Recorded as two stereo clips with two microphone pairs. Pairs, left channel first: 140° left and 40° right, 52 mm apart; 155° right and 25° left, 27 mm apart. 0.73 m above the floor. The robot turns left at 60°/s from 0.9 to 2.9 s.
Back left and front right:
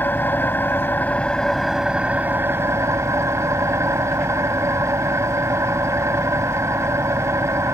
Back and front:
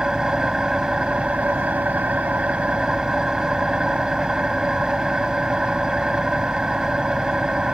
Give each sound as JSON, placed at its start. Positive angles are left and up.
{"t": 0.0, "sound": "an engine running", "azimuth_deg": 90}